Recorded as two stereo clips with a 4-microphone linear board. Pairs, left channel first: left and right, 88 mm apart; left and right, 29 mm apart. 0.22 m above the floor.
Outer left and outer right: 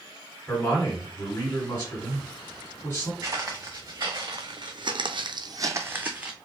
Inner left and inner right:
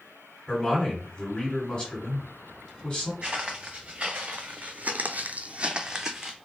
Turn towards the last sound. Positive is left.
turn(degrees=-15)  # may be behind; listen again after turning